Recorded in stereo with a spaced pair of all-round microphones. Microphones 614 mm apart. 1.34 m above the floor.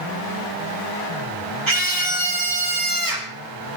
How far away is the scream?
About 4 m.